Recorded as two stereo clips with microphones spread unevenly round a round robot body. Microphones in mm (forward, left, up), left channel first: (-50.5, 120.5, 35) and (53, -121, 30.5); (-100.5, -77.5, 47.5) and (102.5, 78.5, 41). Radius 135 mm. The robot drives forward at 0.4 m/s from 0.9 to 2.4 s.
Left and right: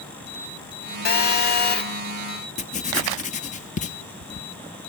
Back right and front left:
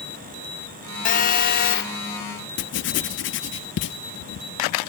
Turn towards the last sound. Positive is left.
turn(degrees=175)